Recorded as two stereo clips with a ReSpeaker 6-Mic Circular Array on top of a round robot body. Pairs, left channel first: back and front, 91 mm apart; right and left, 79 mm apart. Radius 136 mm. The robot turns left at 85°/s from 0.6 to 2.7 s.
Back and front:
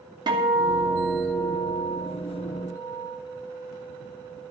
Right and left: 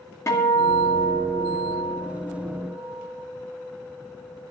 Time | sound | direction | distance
0.3 | a guitar | 35° right | 2.5 m